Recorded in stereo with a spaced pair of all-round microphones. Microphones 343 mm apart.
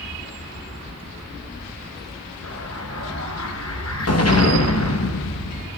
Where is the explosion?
45° left (ahead or behind), 1.0 m.